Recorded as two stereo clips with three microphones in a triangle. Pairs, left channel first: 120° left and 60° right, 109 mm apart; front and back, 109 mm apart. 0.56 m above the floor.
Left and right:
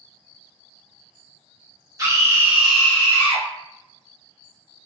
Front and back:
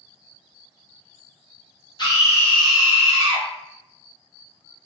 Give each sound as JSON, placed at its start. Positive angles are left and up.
{"t": 2.0, "sound": "a scream", "azimuth_deg": -20, "distance_m": 1.0}